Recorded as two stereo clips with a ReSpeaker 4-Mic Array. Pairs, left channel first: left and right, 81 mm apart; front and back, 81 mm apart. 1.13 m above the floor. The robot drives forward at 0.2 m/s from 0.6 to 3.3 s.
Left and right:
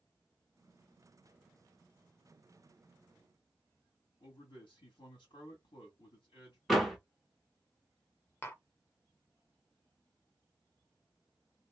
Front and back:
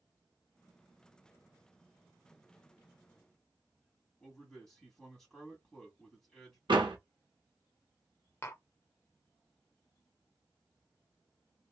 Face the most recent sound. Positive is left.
turn(degrees=45)